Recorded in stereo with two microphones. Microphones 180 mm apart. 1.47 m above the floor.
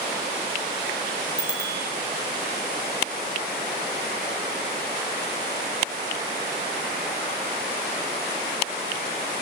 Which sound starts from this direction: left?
A bicycle bell, at 1.4 s.